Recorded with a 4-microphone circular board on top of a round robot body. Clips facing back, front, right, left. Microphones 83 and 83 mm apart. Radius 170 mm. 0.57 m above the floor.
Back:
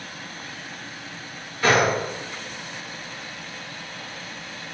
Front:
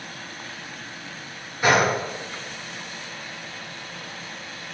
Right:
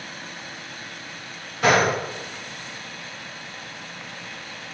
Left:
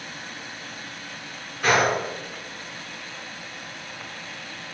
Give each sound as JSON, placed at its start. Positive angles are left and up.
{"t": 1.6, "sound": "a gunshot", "azimuth_deg": -75, "distance_m": 1.8}